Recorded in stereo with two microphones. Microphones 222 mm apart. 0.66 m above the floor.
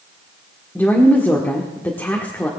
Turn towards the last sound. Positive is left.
turn(degrees=10)  # may be behind; listen again after turning